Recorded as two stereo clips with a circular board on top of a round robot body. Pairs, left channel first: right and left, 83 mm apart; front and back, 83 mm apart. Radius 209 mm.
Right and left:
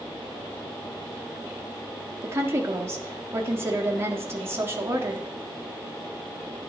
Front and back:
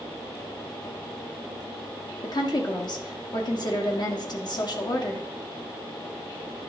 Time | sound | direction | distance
2.2 | a woman speaking | 30° left | 1.7 m